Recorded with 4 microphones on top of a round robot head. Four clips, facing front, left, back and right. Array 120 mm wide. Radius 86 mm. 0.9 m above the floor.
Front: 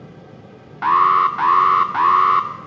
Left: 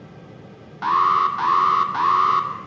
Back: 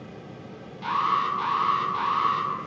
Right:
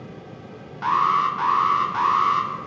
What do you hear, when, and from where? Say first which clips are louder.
0.8 s an alarm: left 2 dB, front 10 dB; 15° left, 3 m